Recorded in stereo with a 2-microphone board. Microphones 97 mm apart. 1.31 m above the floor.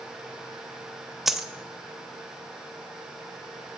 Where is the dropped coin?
5° right (ahead or behind), 0.6 m.